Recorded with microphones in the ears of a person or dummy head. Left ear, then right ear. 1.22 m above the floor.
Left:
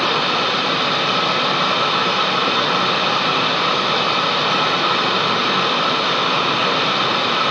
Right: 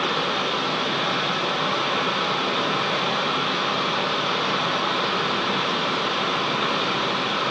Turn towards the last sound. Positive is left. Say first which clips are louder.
# left 6 dB
turn(degrees=30)  # may be behind; listen again after turning